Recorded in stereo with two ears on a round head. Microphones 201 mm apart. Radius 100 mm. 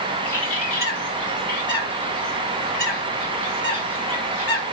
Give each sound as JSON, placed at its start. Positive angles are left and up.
{"t": 0.2, "sound": "a bird", "side_deg": 10, "distance_m": 3.5}